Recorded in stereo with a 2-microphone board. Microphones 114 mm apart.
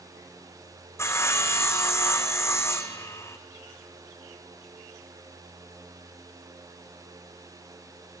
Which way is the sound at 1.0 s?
25° left (ahead or behind).